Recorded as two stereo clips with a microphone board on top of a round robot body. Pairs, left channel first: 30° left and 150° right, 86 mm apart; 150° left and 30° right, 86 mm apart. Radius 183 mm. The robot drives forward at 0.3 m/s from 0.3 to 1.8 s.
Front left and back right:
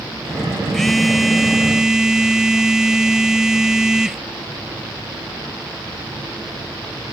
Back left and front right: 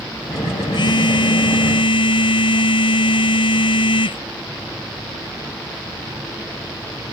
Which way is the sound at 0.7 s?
115° left.